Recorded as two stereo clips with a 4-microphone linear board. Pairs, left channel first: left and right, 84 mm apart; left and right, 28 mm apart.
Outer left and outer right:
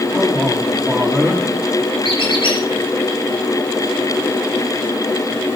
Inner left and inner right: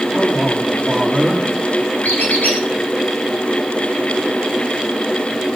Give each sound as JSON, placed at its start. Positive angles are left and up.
{"t": 0.1, "sound": "a man speaking", "side_deg": 0, "distance_m": 6.0}
{"t": 2.0, "sound": "a squeak", "side_deg": 75, "distance_m": 5.5}